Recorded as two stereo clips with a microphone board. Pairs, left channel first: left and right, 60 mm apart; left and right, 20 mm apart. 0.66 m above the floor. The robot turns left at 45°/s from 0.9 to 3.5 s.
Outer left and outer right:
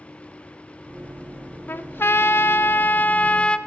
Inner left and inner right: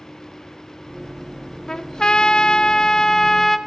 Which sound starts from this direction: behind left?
A trumpet, at 1.7 s.